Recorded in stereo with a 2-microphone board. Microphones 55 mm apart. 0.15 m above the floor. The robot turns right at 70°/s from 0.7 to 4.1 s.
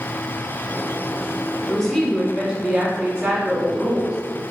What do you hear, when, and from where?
1.7 s a woman speaking: 15° left (ahead or behind), 1.1 m; by 4.5 s 15° right (ahead or behind), 1.1 m